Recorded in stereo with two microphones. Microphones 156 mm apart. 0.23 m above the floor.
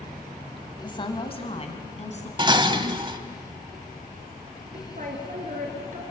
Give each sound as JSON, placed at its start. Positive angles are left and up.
{"t": 0.8, "sound": "a woman speaking", "side_deg": 30, "distance_m": 1.7}
{"t": 2.4, "sound": "dishes clattering", "side_deg": -30, "distance_m": 0.8}
{"t": 4.7, "sound": "a woman speaking", "side_deg": -60, "distance_m": 4.0}